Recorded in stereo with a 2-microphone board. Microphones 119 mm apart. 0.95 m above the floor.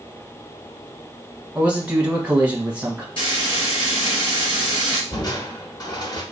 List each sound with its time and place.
1.6 s a man speaking: 10° right (ahead or behind), 1.0 m
3.2 s frying: 45° left (ahead or behind), 2 m
5.1 s crushing: 35° left (ahead or behind), 1.0 m